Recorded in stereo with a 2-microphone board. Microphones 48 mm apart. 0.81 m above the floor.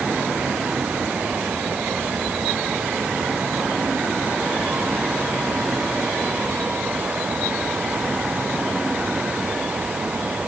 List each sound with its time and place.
Only background noise.